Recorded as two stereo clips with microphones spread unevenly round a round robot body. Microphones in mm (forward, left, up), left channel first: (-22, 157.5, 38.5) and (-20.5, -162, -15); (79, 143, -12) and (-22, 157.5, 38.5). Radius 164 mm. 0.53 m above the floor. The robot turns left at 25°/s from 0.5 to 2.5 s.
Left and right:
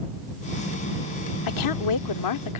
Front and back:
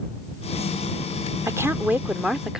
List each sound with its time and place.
1.5 s a woman speaking: 95° left; by 2.6 s 65° left